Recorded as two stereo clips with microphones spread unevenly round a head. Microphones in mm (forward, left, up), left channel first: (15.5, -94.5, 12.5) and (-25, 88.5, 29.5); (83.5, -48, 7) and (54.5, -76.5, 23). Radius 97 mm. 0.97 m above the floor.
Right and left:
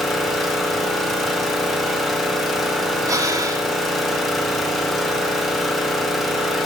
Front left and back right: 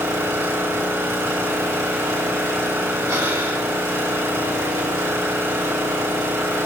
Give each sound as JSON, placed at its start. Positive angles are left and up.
{"t": 0.0, "sound": "an engine running", "azimuth_deg": -170, "distance_m": 1.7}
{"t": 3.1, "sound": "breathing", "azimuth_deg": 175, "distance_m": 1.3}